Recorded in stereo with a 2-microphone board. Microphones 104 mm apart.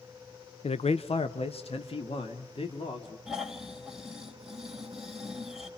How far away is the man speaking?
About 0.7 m.